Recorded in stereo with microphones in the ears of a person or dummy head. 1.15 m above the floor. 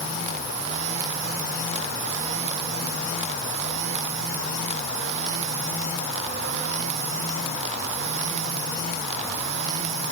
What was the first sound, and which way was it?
Only background noise.